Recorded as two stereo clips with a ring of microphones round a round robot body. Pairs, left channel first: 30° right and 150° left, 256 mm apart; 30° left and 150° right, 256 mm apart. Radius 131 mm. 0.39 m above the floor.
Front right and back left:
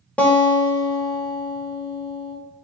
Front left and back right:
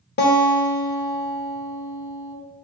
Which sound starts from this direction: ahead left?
A guitar, at 0.2 s.